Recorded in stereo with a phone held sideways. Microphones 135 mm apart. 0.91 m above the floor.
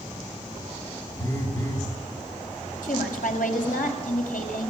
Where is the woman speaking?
85° left, 5 m.